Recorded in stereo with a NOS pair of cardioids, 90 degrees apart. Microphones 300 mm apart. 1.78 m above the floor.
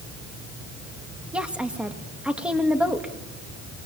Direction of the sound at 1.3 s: 5° right.